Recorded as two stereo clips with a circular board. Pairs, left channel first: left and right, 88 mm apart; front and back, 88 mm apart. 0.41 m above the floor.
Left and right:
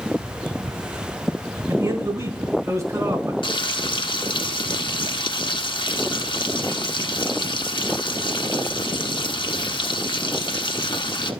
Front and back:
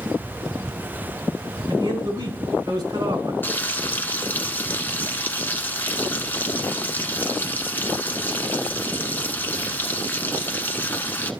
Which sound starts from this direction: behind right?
A man speaking, at 1.7 s.